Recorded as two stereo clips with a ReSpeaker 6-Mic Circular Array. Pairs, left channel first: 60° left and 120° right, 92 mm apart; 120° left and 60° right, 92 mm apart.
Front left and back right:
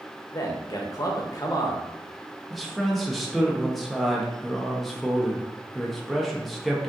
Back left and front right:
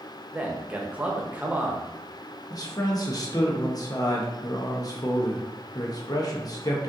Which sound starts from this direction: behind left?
A man speaking, at 2.5 s.